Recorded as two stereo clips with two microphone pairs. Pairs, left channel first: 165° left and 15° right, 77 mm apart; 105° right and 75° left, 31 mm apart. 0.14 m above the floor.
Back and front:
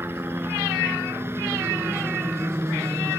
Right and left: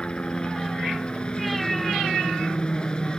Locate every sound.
0.0 s a helicopter: 60° right; by 3.2 s 55° right